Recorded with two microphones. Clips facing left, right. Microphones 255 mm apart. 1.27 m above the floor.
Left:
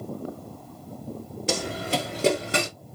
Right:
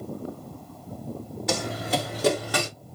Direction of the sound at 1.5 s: 35° left (ahead or behind).